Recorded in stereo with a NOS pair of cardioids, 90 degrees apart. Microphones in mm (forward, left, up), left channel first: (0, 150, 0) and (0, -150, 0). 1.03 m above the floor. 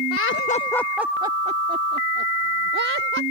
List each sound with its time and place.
0.1 s laughter: 55° left; by 3.2 s 40° right